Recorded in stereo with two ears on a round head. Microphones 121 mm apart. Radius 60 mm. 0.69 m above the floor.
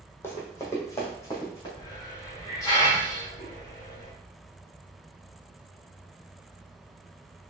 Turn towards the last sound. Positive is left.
turn(degrees=25)  # may be behind; listen again after turning